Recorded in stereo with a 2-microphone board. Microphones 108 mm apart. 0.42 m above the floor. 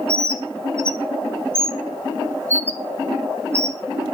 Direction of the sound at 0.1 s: 25° right (ahead or behind).